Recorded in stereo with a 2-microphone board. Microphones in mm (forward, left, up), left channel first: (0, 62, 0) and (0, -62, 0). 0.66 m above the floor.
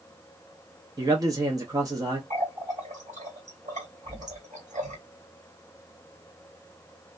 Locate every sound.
1.0 s a man speaking: 30° right (ahead or behind), 0.6 m
2.3 s a running tap: 70° right (ahead or behind), 1.5 m